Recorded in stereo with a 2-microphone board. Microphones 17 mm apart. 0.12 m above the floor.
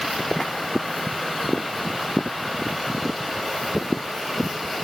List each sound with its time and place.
Only background noise.